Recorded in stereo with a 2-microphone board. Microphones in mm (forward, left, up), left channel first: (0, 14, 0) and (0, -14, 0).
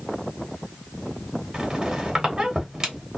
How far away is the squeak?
About 1.0 m.